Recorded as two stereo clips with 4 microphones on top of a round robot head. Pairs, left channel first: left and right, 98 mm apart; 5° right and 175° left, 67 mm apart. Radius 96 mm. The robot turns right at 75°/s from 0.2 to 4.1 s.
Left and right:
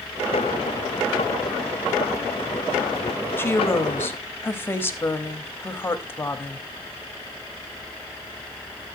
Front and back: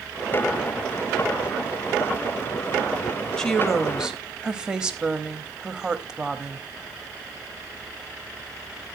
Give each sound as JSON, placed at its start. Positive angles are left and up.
{"t": 3.4, "sound": "a woman speaking", "azimuth_deg": 60, "distance_m": 1.2}